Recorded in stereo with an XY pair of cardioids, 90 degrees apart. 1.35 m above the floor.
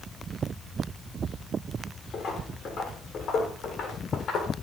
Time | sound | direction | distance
2.1 | footsteps | 65° left | 6 m